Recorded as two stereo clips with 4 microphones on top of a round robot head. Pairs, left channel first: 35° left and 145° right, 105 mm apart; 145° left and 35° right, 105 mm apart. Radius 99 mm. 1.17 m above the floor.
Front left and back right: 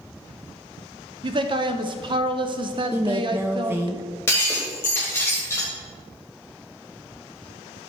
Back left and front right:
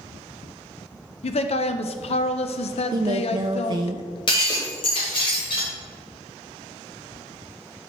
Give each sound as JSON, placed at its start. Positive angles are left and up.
{"t": 1.2, "sound": "a man speaking", "azimuth_deg": 170, "distance_m": 0.7}
{"t": 2.9, "sound": "a woman speaking", "azimuth_deg": -80, "distance_m": 0.5}
{"t": 4.3, "sound": "breaking glass", "azimuth_deg": 105, "distance_m": 1.5}